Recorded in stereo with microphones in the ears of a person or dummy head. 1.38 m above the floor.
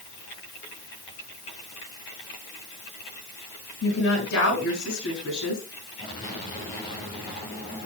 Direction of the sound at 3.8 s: 65° left (ahead or behind).